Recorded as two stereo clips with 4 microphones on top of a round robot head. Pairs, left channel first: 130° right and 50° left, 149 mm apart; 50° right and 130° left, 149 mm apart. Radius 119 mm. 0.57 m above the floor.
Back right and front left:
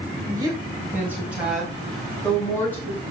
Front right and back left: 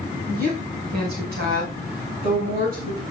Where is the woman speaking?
110° left, 4 m; by 3.0 s 155° left, 6 m.